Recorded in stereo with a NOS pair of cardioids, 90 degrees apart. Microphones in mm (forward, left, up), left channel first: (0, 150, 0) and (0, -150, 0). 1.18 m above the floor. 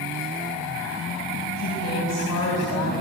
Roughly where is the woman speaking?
Ahead left.